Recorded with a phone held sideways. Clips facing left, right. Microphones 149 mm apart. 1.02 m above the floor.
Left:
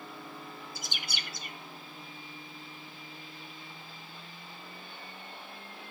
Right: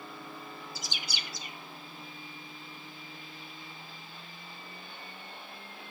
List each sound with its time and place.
0.8 s a bird: 55° left (ahead or behind), 1.7 m